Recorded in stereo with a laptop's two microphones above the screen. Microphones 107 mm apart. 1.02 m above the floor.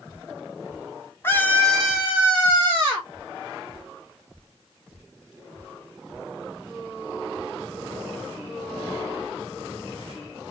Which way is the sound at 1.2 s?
20° left (ahead or behind).